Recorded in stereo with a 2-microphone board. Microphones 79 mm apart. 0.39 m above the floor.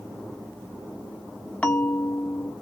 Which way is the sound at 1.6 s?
15° left (ahead or behind).